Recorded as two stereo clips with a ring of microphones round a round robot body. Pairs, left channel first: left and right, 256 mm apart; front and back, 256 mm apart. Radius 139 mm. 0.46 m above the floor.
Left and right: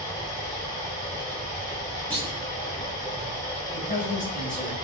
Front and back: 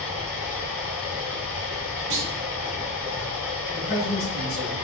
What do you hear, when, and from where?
0.0 s running water: 15° left, 1.9 m
2.1 s a clunk: 175° left, 1.2 m
3.7 s a man speaking: 35° left, 2.0 m